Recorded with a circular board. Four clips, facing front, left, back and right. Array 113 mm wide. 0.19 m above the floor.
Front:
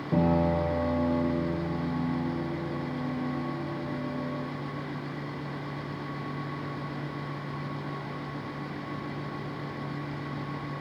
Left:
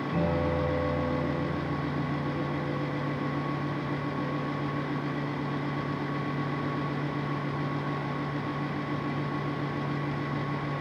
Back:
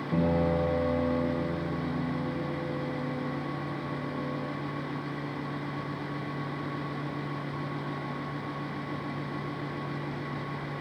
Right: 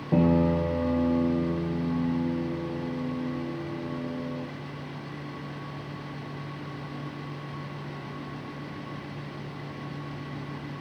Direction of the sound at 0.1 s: 80° right.